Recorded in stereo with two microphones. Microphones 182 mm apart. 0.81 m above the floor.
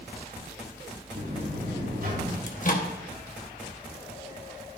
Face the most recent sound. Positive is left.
turn(degrees=45)  # may be behind; listen again after turning